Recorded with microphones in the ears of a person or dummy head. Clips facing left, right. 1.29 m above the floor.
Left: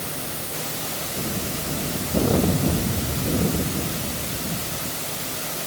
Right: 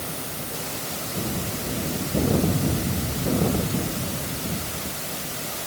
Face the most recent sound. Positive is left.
No sound to turn to.